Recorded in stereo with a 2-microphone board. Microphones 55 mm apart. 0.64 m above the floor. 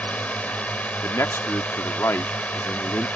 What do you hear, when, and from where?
0.0 s a drone: 25° left (ahead or behind)
1.0 s a man speaking: 50° left (ahead or behind)